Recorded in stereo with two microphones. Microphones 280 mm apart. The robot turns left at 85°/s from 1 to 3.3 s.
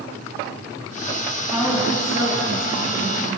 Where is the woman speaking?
10° left, 10 m; by 3.4 s 145° right, 10 m.